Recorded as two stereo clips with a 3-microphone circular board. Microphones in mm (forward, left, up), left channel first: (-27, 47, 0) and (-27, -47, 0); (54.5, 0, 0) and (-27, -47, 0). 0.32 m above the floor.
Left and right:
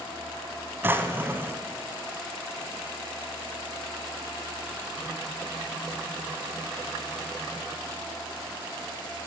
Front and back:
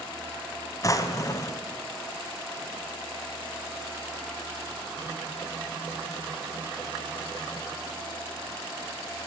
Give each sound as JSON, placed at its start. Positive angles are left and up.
{"t": 0.8, "sound": "a drawer", "azimuth_deg": -25, "distance_m": 1.0}